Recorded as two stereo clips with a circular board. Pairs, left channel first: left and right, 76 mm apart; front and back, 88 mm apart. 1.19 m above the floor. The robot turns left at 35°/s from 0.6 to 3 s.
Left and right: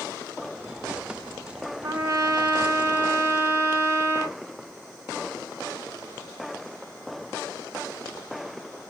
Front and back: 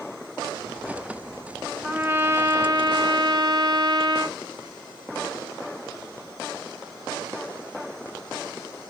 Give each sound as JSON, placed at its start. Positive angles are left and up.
{"t": 1.8, "sound": "a trumpet", "azimuth_deg": -105, "distance_m": 0.9}